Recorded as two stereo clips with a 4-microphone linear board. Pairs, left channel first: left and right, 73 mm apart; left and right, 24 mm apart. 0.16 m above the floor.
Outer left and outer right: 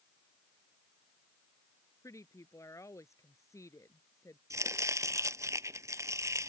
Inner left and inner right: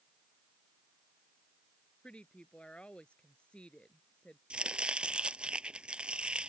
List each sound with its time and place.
2.0 s a woman speaking: 45° left (ahead or behind)
4.5 s chopping: 45° right (ahead or behind)